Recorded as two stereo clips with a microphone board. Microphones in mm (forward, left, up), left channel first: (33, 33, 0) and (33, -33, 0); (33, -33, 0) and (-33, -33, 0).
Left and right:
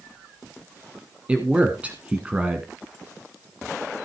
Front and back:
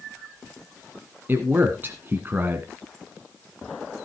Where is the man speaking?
145° right, 1.4 m.